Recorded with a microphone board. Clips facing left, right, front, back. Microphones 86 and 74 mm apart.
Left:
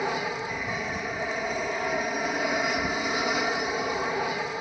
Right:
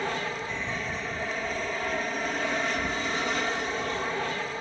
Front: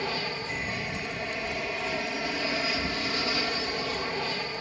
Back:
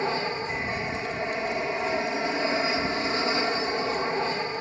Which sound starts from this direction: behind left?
An aircraft, at 0.0 s.